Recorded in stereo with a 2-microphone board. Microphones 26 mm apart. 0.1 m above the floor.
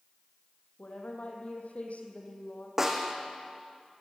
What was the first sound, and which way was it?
A woman speaking, 65° left (ahead or behind).